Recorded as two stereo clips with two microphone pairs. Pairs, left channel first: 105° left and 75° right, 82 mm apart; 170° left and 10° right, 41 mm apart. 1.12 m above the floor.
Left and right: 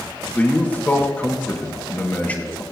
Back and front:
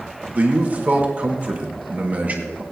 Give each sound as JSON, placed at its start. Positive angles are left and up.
{"t": 0.3, "sound": "a man speaking", "azimuth_deg": 40, "distance_m": 1.5}